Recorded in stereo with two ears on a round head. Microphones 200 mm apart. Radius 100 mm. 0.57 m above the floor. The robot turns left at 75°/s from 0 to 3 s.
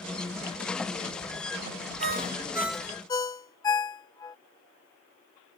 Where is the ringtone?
50° right (ahead or behind); by 4.4 s 15° left (ahead or behind).